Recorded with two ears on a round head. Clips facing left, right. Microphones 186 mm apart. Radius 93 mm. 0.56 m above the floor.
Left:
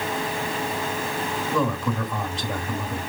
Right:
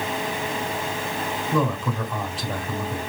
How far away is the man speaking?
About 3 m.